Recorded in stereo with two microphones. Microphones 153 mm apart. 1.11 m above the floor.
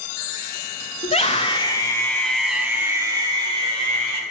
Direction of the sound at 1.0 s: 45° left (ahead or behind).